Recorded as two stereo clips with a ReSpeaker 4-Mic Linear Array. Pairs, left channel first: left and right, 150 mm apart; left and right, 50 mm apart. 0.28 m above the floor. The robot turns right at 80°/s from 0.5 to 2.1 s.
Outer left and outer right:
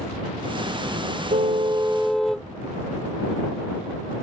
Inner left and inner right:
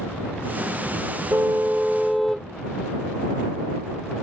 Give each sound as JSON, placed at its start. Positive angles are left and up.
{"t": 1.3, "sound": "a car horn", "azimuth_deg": -65}